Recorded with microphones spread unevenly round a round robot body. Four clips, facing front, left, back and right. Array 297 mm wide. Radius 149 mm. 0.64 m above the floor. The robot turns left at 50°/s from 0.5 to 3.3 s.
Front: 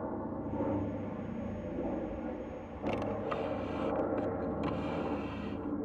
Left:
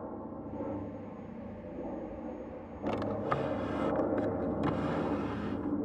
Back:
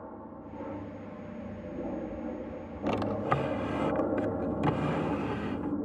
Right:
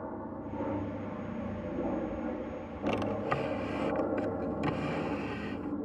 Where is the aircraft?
15° right; by 5.8 s 150° left.